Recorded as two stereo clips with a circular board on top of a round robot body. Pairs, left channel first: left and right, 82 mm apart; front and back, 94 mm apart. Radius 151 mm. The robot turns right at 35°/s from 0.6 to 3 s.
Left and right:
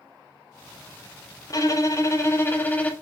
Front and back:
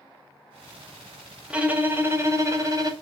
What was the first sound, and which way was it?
A violin, 105° left.